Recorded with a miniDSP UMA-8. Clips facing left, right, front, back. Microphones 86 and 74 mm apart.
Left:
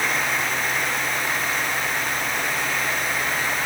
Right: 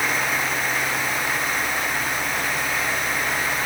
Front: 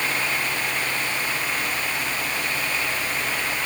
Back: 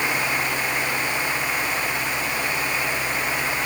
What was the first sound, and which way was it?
Only background noise.